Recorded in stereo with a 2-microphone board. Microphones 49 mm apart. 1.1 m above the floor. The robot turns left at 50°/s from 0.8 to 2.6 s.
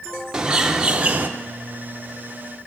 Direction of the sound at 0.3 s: 15° right (ahead or behind).